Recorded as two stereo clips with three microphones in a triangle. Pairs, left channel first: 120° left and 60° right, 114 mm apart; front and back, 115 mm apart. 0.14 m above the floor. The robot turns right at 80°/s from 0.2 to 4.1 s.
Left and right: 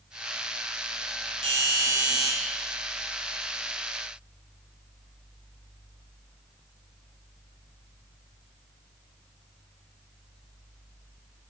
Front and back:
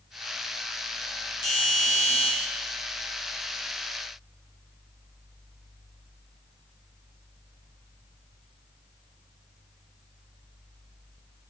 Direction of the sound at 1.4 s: 35° right.